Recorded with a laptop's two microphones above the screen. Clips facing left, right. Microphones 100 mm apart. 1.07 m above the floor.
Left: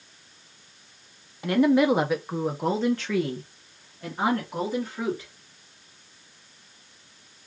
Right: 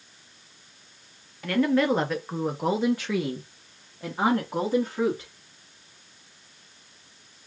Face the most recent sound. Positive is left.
turn(degrees=-20)  # may be behind; listen again after turning